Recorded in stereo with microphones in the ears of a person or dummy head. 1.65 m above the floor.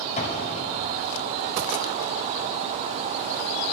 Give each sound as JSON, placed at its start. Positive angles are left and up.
{"t": 0.2, "sound": "an explosion", "side_deg": 40, "distance_m": 6.5}